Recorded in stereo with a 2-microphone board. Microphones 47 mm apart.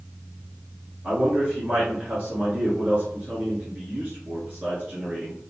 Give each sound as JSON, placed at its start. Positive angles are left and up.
{"t": 1.0, "sound": "a man speaking", "side_deg": -25, "distance_m": 1.6}